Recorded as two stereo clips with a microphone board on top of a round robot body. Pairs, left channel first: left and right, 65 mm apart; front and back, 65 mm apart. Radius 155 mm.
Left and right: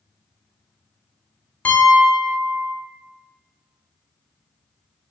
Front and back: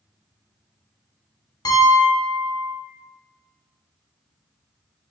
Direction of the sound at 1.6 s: 20° left.